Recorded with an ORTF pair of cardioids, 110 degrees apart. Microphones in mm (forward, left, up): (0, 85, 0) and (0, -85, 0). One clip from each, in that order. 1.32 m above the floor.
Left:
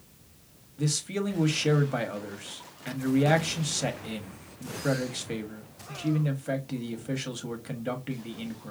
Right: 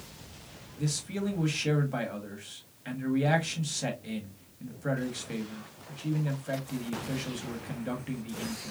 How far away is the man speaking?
About 1.2 m.